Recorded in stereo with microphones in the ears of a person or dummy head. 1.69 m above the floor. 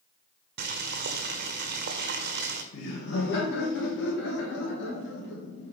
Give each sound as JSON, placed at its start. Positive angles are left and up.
{"t": 0.6, "sound": "boiling", "side_deg": -60, "distance_m": 0.8}
{"t": 2.7, "sound": "laughter", "side_deg": 70, "distance_m": 1.8}